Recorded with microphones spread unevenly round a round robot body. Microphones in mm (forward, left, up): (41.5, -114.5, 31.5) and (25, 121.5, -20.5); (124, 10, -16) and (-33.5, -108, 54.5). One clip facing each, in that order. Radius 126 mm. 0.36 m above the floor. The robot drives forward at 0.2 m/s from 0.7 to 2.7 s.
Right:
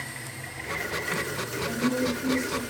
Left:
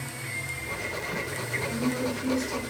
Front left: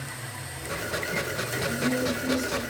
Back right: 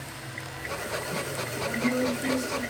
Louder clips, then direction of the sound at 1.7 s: Right 2 dB, back right 1 dB; 110° left.